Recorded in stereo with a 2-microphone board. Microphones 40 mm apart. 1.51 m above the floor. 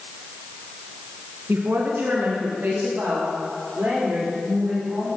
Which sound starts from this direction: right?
A woman speaking, at 1.5 s.